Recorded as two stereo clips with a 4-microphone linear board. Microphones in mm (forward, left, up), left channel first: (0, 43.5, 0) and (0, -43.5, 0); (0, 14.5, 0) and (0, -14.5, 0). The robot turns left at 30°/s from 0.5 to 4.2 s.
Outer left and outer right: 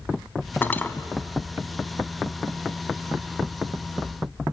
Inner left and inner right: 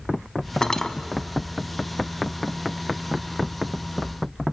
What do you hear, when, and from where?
0.6 s cutlery clinking: 25° left (ahead or behind), 0.9 m; by 0.9 s 15° left (ahead or behind), 0.9 m